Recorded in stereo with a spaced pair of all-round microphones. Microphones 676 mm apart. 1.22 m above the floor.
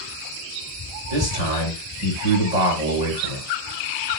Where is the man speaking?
60° left (ahead or behind), 5 m.